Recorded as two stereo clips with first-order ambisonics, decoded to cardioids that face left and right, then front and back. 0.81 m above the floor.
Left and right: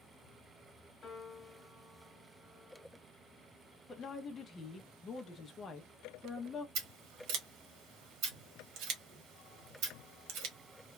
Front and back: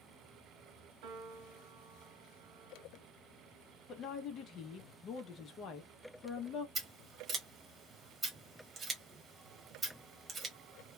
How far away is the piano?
About 1.0 m.